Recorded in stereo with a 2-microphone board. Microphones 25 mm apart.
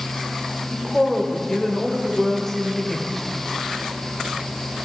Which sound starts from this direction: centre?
A woman speaking, at 0.7 s.